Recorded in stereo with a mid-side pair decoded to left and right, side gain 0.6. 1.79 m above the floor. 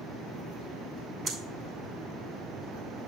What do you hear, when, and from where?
1.3 s breathing: 40° right, 6.5 m